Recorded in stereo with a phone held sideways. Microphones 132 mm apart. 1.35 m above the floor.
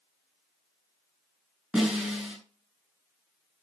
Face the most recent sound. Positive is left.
turn(degrees=0)  # may be behind; listen again after turning